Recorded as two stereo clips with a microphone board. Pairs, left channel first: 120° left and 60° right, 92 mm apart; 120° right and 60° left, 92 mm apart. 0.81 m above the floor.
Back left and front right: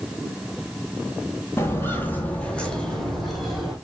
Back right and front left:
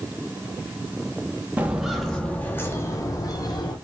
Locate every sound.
1.6 s footsteps: 115° left, 0.9 m; by 3.8 s 145° right, 1.4 m